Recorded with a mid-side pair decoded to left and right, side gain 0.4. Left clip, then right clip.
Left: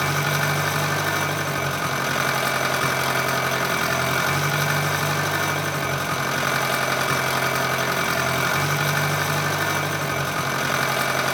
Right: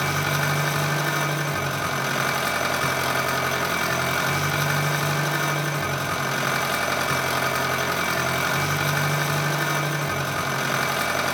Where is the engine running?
15° left, 0.9 m.